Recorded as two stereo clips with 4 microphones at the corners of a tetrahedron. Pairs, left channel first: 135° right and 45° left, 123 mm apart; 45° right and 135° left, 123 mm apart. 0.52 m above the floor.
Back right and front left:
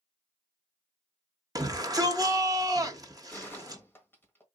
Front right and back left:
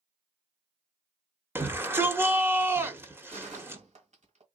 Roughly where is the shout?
Left.